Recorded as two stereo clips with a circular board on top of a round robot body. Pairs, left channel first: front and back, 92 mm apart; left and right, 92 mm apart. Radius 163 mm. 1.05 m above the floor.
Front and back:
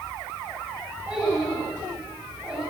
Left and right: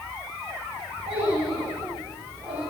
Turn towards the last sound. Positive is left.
turn(degrees=-100)